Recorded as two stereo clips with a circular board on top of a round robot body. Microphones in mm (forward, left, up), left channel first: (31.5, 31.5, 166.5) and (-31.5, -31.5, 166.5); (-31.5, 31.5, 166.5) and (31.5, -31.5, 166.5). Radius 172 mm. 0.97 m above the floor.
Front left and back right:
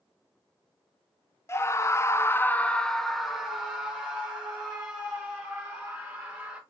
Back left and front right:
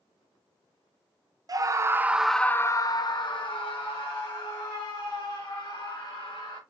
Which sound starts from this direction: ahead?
A scream, at 1.5 s.